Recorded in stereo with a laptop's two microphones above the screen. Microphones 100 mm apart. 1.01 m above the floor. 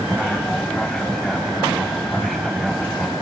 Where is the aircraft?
5° left (ahead or behind); by 3.2 s centre (ahead or behind).